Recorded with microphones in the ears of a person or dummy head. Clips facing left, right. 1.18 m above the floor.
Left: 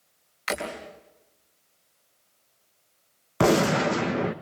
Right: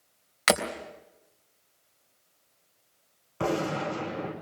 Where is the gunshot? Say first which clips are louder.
Left 8 dB; 70° left (ahead or behind), 1.6 m.